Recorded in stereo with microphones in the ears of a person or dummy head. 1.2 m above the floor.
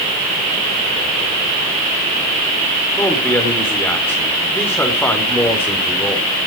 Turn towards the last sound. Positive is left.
turn(degrees=10)  # may be behind; listen again after turning